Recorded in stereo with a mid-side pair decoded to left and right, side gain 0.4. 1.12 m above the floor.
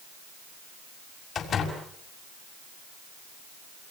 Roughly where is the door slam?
Ahead left.